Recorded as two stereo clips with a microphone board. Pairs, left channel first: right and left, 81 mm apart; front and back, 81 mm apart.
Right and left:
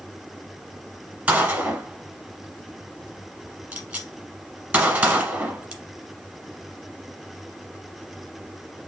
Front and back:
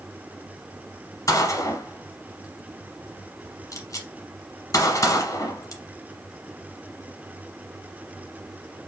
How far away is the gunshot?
About 1.2 m.